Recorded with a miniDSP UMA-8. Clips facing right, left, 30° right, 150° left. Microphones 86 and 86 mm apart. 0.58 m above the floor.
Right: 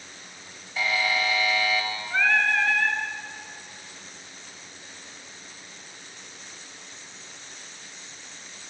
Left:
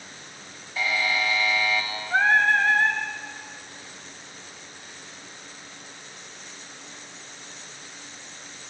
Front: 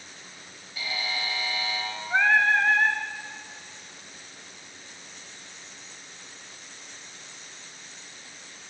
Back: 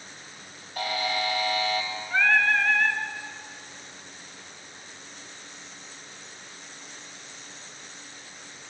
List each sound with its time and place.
0.8 s a buzzer: straight behind, 3 m
2.1 s singing: 35° left, 1.6 m